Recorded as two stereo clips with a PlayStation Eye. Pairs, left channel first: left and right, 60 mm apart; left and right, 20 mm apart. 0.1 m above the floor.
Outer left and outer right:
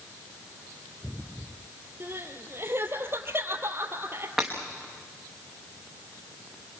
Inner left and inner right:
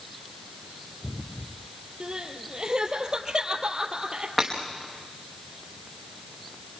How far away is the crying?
About 2 m.